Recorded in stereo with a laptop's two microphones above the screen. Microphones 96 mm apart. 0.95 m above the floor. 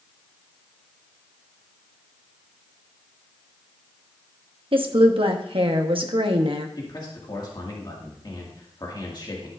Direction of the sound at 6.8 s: 45° left (ahead or behind).